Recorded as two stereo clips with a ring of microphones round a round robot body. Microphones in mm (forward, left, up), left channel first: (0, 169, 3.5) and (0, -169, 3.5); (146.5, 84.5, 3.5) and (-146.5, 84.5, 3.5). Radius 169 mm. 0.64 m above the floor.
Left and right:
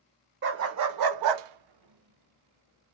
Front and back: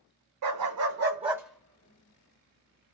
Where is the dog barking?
150° right, 0.7 m; by 2.9 s 40° right, 1.0 m.